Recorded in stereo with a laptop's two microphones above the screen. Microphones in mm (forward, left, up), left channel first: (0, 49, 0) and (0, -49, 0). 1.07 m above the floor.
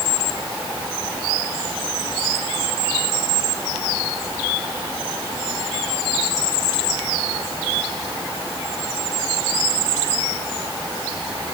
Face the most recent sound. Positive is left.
No sound to turn to.